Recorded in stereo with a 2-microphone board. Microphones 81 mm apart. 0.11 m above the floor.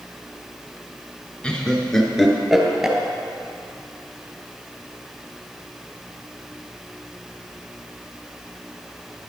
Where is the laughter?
10° left (ahead or behind), 1.1 m; by 3.0 s 5° right (ahead or behind), 1.6 m.